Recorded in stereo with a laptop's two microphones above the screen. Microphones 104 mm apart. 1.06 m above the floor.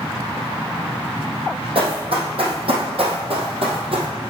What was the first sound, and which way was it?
Running footsteps, 60° right (ahead or behind).